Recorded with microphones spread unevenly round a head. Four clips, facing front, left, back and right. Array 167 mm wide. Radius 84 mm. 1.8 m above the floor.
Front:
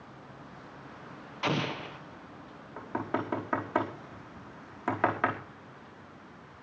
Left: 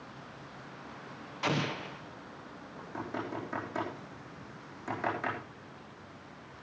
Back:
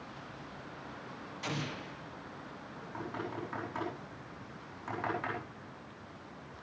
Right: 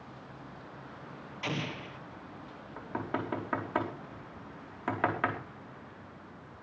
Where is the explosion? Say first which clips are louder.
Left 4 dB, front 8 dB; 30° left, 1.5 m.